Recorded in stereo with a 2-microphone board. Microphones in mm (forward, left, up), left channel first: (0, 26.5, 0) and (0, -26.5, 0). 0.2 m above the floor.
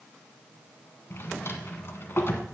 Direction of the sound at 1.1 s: 50° left (ahead or behind).